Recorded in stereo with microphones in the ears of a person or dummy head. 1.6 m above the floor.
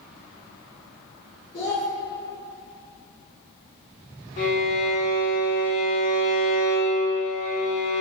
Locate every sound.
1.5 s a child speaking: 35° left (ahead or behind), 1.8 m
4.4 s a violin: 40° left (ahead or behind), 1.8 m